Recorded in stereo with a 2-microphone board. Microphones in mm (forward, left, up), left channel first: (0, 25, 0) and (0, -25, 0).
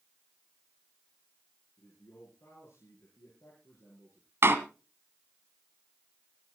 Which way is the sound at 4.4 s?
55° right (ahead or behind).